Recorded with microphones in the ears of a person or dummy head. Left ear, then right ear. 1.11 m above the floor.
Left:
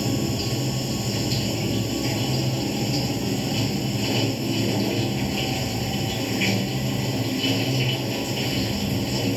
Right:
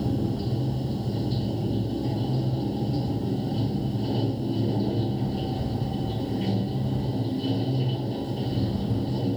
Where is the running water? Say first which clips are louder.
Left 4 dB; 70° left (ahead or behind).